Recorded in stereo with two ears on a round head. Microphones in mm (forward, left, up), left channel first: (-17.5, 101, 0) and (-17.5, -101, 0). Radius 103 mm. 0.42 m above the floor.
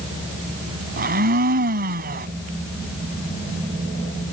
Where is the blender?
45° right (ahead or behind).